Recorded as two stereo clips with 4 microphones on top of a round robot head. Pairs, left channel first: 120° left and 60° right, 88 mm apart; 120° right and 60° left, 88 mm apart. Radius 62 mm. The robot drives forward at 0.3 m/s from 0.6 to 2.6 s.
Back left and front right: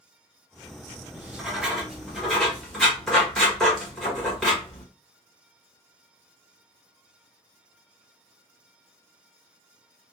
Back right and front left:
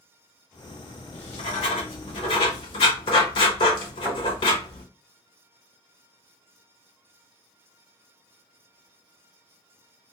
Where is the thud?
125° left, 1.5 m.